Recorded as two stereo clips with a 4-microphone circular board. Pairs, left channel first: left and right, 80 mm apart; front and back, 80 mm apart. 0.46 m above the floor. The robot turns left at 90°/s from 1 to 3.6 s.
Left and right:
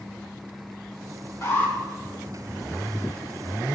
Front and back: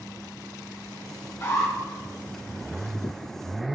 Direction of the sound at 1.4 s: 50° left.